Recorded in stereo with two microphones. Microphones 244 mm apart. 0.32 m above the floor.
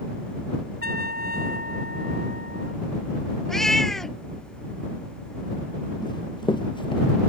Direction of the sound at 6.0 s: 20° left (ahead or behind).